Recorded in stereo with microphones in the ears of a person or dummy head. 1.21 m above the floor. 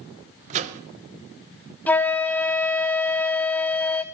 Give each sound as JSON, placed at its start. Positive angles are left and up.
{"t": 0.5, "sound": "a microwave", "side_deg": -40, "distance_m": 0.5}
{"t": 1.9, "sound": "a flute", "side_deg": 5, "distance_m": 0.7}